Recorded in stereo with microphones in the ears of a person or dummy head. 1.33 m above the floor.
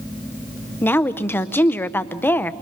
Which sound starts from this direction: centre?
A woman speaking, at 0.8 s.